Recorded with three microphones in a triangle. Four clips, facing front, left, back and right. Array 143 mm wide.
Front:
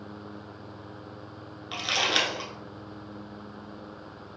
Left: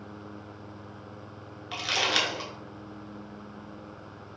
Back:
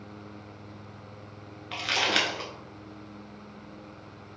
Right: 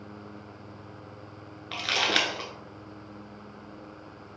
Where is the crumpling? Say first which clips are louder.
Right 1 dB, even; 115° right, 0.8 m.